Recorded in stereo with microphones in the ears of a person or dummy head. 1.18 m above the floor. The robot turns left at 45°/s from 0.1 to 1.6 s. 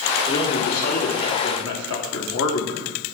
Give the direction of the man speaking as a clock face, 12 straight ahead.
7 o'clock.